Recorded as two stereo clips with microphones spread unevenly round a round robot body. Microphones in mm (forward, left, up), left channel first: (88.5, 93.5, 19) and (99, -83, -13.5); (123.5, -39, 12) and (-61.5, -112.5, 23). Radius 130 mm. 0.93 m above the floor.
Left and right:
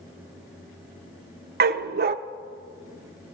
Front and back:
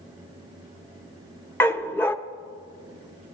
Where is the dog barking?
60° right, 0.5 m.